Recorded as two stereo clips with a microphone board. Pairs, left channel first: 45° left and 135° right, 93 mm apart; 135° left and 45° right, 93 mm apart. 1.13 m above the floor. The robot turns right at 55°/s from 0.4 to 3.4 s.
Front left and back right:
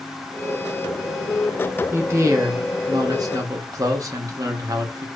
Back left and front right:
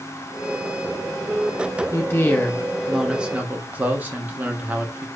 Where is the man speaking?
170° left, 0.6 m; by 5.0 s 110° right, 0.6 m.